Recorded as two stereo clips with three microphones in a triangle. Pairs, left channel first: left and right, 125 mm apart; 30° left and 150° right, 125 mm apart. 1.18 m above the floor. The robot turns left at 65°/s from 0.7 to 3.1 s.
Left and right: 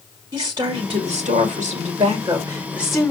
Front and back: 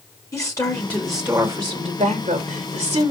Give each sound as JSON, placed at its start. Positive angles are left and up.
{"t": 0.3, "sound": "a woman speaking", "azimuth_deg": -35, "distance_m": 2.5}